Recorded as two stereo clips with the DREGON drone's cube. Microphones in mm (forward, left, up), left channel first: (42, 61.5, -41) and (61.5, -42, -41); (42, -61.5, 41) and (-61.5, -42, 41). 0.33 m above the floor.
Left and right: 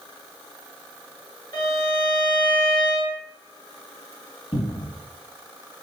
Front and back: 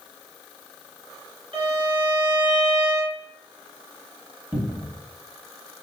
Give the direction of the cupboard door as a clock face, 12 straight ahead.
9 o'clock.